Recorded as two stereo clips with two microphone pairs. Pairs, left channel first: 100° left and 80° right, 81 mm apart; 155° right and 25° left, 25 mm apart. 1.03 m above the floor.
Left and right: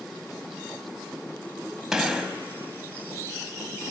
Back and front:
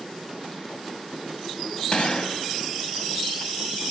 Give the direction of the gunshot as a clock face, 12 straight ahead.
5 o'clock.